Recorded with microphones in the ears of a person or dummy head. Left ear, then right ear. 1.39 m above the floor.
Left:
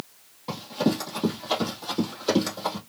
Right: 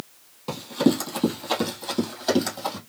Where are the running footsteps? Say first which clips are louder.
Right 4 dB; 15° right (ahead or behind), 2 m; by 2.8 s centre (ahead or behind), 3 m.